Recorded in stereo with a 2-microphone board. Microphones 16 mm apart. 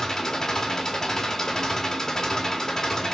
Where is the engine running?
30° left (ahead or behind), 0.9 m.